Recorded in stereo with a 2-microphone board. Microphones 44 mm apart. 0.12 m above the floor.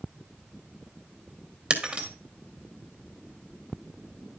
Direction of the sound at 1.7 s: 30° right (ahead or behind).